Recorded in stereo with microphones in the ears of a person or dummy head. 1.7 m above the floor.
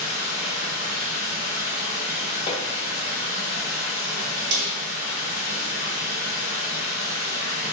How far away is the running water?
About 1.6 m.